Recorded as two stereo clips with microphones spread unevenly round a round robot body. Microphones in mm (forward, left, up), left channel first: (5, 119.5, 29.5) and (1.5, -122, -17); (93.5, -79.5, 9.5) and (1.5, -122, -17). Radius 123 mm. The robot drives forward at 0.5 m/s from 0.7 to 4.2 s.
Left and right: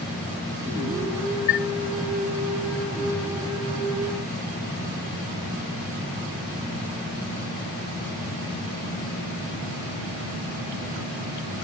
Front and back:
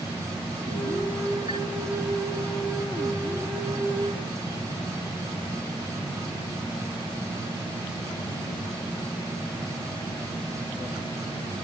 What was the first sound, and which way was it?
A chime, 150° left.